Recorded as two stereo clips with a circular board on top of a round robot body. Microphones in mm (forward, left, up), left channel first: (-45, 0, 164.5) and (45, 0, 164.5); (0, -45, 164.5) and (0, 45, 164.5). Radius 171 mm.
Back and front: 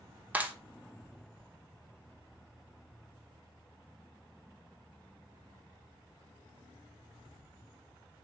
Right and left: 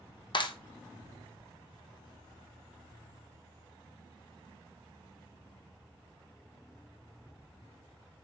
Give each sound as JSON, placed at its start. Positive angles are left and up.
{"t": 0.3, "sound": "a clap", "azimuth_deg": -70, "distance_m": 1.7}